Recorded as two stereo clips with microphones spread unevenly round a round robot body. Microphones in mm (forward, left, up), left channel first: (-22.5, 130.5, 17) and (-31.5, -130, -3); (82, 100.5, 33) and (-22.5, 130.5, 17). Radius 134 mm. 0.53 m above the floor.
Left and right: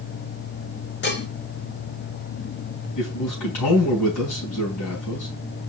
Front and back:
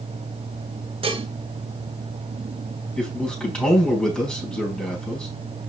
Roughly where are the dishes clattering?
Behind left.